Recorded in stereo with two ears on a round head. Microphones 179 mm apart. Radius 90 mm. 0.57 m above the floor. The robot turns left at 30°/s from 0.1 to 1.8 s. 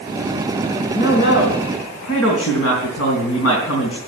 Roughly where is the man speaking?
Left.